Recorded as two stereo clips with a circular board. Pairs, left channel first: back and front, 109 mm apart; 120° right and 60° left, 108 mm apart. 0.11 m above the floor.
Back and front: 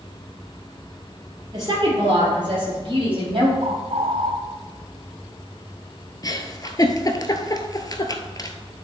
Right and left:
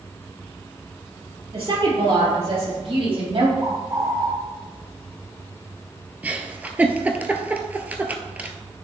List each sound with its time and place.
1.5 s a woman speaking: 40° left, 3 m
3.6 s a bird: straight ahead, 0.9 m
6.2 s a giggle: 135° left, 0.7 m